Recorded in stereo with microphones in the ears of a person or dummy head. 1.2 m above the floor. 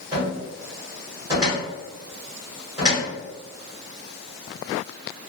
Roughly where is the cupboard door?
Centre.